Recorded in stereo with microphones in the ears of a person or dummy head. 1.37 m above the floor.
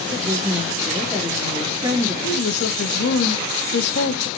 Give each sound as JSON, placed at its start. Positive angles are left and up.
{"t": 0.1, "sound": "a woman speaking", "side_deg": -15, "distance_m": 3.5}
{"t": 2.2, "sound": "a woman speaking", "side_deg": 60, "distance_m": 1.9}